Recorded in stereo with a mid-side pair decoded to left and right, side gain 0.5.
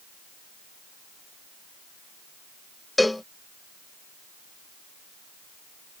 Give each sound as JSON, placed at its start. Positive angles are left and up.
{"t": 3.0, "sound": "a cowbell", "azimuth_deg": 10}